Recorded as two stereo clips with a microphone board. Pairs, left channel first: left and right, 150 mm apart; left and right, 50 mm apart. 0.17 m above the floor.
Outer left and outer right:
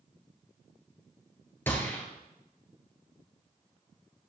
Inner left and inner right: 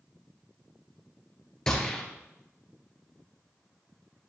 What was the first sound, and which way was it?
A gunshot, 15° left (ahead or behind).